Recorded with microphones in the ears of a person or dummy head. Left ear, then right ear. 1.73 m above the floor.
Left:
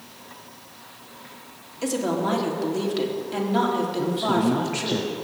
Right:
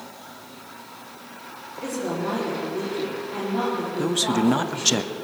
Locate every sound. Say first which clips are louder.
1.8 s a woman speaking: left 3 dB; 55° left (ahead or behind), 4 m
4.0 s a man speaking: right 3 dB; 65° right (ahead or behind), 0.7 m